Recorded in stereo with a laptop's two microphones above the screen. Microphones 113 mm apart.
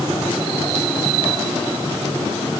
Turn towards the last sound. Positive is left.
No sound to turn to.